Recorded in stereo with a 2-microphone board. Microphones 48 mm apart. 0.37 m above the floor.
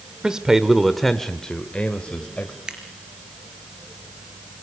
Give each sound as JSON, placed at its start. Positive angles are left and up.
{"t": 0.2, "sound": "a man speaking", "side_deg": -15, "distance_m": 1.2}
{"t": 2.7, "sound": "scissors", "side_deg": -15, "distance_m": 3.5}